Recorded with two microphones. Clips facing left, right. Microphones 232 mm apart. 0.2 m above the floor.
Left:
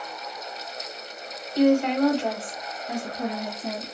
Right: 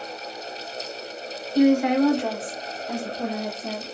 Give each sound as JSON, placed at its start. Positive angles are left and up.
{"t": 1.6, "sound": "a woman speaking", "side_deg": -10, "distance_m": 1.3}